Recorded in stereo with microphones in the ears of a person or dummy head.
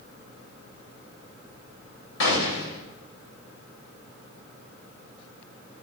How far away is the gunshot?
About 3 m.